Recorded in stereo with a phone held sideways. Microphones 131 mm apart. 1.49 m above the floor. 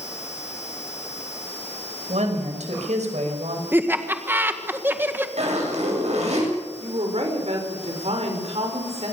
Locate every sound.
2.1 s a woman speaking: 70° right (ahead or behind), 5.5 m
3.7 s laughter: 15° right (ahead or behind), 1.8 m
5.4 s a zipper: 65° right (ahead or behind), 8 m
6.8 s a woman speaking: 60° right (ahead or behind), 6 m